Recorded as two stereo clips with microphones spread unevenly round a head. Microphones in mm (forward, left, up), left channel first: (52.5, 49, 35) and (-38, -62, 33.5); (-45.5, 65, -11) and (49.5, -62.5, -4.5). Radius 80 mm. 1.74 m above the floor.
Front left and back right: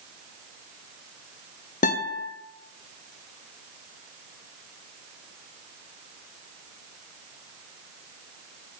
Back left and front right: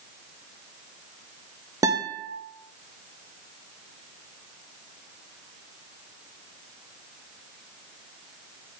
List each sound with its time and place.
1.8 s a guitar: 15° left, 0.8 m